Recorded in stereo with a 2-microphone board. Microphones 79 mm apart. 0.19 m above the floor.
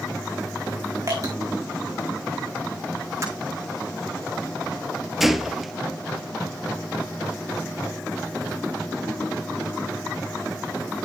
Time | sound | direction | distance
1.1 | dripping | 45° right (ahead or behind) | 4 m
3.2 | breaking glass | 35° right (ahead or behind) | 8 m
5.2 | a gunshot | centre (ahead or behind) | 1.0 m